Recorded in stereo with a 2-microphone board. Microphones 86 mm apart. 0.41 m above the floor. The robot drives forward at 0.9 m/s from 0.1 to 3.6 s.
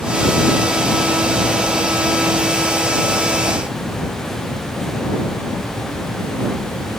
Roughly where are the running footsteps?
I don't hear running footsteps.